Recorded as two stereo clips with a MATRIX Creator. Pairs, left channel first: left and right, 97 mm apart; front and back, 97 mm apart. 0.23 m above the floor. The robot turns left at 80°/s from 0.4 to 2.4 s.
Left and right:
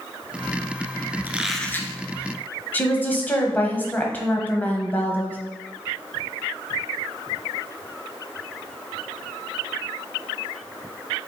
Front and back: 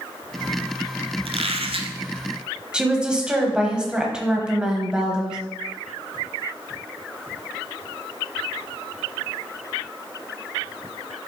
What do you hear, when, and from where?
1.2 s a squeak: 160° right, 0.8 m; by 1.9 s 145° left, 0.8 m
2.7 s a woman speaking: 120° left, 1.2 m